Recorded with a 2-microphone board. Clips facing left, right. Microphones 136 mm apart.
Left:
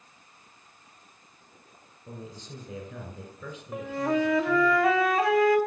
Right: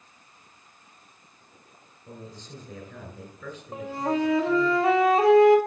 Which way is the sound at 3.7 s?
30° right (ahead or behind).